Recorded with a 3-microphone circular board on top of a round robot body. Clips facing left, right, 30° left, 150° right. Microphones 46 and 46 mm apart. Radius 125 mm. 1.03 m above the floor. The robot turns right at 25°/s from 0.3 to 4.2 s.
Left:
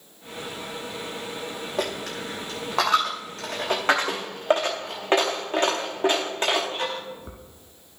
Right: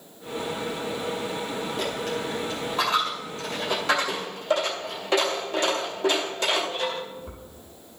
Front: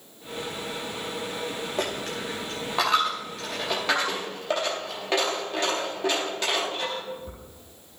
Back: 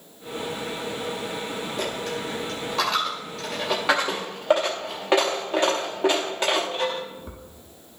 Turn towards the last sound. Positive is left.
turn(degrees=140)